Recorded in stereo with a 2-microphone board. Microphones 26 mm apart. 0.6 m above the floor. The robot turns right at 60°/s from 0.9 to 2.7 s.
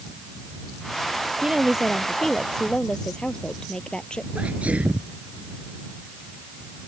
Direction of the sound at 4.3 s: 85° right.